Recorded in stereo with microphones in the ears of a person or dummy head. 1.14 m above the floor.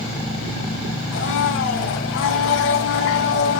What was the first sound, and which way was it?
A blender, 80° left.